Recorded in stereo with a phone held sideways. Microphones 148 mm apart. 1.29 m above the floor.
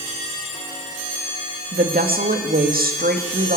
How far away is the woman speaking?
About 1.7 m.